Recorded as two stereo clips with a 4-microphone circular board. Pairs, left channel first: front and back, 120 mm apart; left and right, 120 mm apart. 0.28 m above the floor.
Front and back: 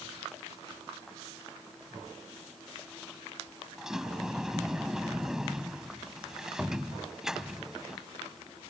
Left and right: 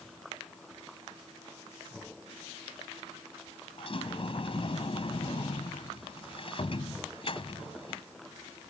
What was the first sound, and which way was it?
A sliding door, 95° left.